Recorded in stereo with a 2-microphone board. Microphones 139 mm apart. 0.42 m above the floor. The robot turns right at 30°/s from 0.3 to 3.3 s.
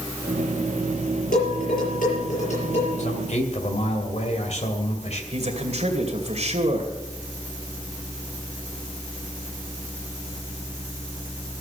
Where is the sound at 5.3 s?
50° right (ahead or behind), 2 m.